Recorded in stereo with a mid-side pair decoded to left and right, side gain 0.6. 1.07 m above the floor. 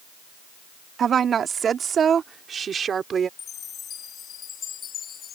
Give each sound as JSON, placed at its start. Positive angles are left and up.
{"t": 1.0, "sound": "a woman speaking", "azimuth_deg": -40}
{"t": 3.4, "sound": "a chime", "azimuth_deg": 45}